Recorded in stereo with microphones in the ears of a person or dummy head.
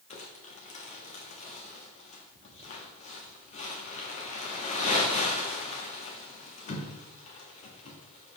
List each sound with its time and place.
0.1 s crumpling: 40° left (ahead or behind), 1.2 m